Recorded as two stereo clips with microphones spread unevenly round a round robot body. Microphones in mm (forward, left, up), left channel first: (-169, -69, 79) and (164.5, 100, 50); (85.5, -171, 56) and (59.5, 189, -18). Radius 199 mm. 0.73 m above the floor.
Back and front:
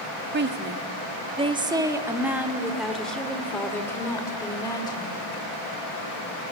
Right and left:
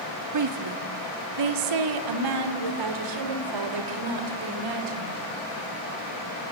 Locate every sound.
0.3 s a woman speaking: 80° left, 1.7 m; by 5.3 s 125° left, 4 m